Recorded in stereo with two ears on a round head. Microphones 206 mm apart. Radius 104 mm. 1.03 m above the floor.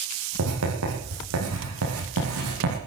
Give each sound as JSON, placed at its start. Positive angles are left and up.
{"t": 0.4, "sound": "writing", "side_deg": -65, "distance_m": 8.0}